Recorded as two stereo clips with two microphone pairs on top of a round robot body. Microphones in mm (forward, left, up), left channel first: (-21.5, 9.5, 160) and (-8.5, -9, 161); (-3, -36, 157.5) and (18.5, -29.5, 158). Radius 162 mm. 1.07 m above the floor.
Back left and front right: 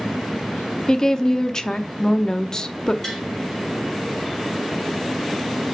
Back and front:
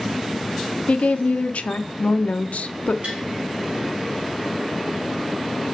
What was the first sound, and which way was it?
A woman speaking, 175° right.